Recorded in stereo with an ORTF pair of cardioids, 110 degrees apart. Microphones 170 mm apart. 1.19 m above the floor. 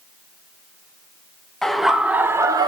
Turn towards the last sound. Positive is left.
turn(degrees=-25)